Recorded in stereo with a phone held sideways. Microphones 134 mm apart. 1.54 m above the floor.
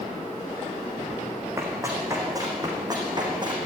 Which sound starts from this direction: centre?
Running footsteps, at 1.6 s.